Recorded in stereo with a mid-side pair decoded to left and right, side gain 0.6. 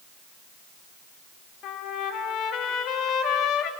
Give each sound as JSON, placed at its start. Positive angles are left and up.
{"t": 1.6, "sound": "a trumpet", "azimuth_deg": 60, "distance_m": 2.5}